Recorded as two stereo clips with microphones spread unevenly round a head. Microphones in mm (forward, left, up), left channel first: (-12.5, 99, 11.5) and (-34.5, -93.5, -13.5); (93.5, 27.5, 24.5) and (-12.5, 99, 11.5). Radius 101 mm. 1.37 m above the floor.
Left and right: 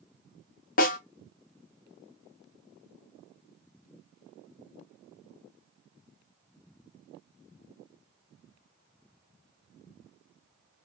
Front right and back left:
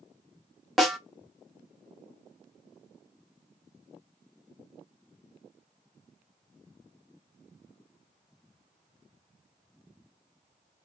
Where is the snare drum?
50° left, 0.7 m.